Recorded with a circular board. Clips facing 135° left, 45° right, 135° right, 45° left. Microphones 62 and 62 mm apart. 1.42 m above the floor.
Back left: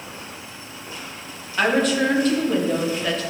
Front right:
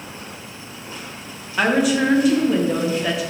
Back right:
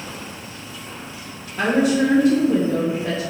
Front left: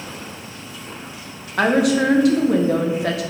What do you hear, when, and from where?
1.6 s a woman speaking: 35° left, 1.4 m